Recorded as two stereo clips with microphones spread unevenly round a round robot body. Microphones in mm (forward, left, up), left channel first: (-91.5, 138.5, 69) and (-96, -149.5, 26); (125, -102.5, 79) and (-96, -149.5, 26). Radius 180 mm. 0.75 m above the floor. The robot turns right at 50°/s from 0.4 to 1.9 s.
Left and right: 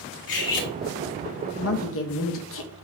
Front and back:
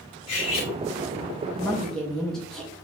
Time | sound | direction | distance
0.3 | cutlery clinking | 55° left | 1.2 m
1.6 | a woman speaking | 100° left | 0.6 m